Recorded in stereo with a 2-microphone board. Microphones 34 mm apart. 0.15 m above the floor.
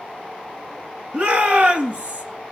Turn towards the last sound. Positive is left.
turn(degrees=-45)  # may be behind; listen again after turning